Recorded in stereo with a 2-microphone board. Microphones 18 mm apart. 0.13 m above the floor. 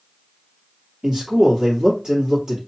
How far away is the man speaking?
About 2.5 m.